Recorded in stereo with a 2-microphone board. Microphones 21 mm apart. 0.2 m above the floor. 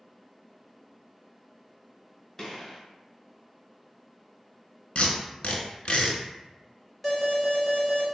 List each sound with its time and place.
2.4 s a gunshot: 20° left (ahead or behind), 1.5 m
5.0 s tape being pulled: 65° left (ahead or behind), 0.7 m
7.0 s an alarm: 10° left (ahead or behind), 1.1 m